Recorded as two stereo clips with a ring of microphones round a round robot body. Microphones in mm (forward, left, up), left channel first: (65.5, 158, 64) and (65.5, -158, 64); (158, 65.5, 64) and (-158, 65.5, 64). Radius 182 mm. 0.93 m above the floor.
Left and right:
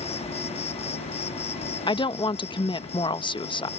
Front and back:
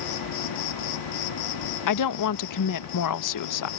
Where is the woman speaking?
15° left.